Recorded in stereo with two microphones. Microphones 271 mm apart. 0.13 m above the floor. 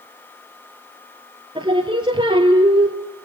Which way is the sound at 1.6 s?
20° right (ahead or behind).